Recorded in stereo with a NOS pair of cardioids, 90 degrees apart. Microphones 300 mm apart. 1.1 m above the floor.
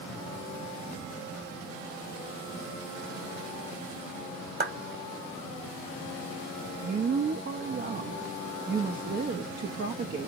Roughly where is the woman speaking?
Ahead right.